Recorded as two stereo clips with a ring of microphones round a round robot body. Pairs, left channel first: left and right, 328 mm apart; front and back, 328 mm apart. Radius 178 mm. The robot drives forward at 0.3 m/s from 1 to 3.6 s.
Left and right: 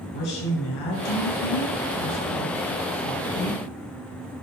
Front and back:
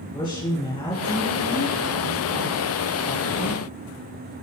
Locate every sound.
0.1 s a woman speaking: 80° left, 4 m; by 3.6 s 90° left, 4 m